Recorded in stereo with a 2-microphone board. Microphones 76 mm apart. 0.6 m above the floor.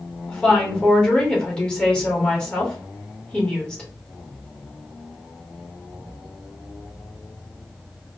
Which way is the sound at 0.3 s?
15° left (ahead or behind).